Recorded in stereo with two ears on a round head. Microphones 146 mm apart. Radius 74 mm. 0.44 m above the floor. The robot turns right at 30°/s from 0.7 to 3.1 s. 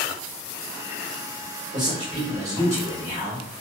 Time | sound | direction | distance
1.7 | a man speaking | 75° right | 1.0 m